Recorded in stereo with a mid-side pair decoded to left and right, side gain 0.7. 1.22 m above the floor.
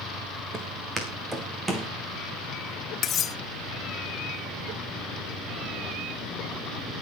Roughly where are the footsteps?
Ahead right.